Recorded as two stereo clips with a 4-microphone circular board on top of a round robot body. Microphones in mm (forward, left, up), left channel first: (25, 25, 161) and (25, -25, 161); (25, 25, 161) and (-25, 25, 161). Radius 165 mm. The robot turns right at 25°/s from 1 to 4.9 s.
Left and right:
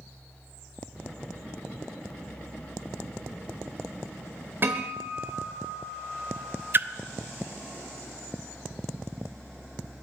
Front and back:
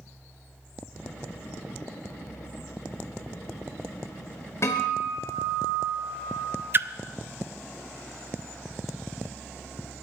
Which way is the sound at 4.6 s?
45° right.